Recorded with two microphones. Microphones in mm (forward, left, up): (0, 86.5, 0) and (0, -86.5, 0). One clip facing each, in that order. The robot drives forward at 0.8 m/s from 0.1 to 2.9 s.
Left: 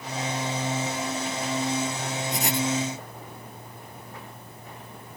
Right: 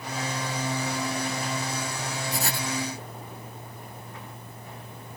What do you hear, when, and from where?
2.3 s writing: 20° left (ahead or behind)